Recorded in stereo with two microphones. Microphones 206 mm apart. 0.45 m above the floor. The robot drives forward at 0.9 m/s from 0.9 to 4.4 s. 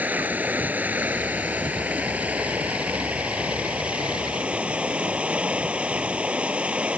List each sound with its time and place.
0.0 s running water: 5° right (ahead or behind)